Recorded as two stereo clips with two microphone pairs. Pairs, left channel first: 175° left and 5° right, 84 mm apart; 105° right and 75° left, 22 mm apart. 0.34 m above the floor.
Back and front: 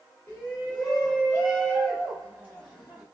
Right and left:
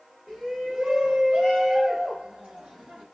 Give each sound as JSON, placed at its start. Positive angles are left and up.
{"t": 0.3, "sound": "a shout", "azimuth_deg": 105, "distance_m": 1.2}